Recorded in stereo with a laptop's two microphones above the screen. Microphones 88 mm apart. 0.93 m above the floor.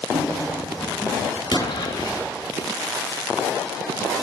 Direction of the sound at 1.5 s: 50° left (ahead or behind).